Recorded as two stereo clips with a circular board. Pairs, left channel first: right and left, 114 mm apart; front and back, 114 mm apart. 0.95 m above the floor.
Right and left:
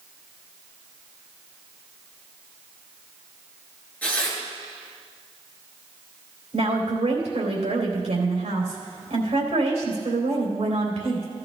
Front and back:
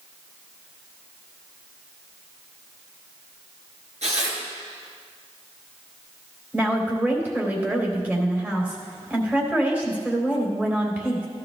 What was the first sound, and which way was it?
Tearing paper, 165° right.